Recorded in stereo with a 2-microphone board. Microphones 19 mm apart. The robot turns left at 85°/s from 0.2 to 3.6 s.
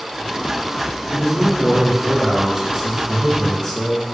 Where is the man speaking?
Straight ahead, 1.7 m; by 4.0 s 145° left, 1.7 m.